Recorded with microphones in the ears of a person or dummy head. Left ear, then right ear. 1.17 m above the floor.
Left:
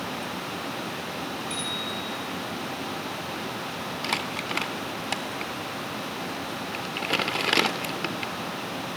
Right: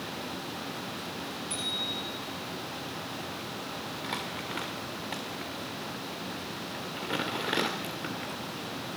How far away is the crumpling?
About 2 m.